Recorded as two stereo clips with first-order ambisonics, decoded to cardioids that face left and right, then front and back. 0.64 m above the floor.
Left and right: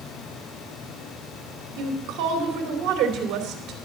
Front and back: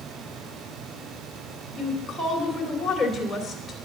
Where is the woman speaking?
75° right, 2.5 m.